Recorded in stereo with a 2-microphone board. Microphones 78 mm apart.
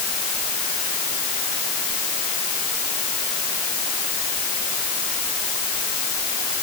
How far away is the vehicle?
No vehicle in this recording.